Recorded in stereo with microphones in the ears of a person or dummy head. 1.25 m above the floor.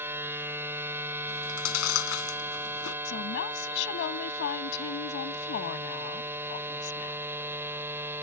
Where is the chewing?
80° left.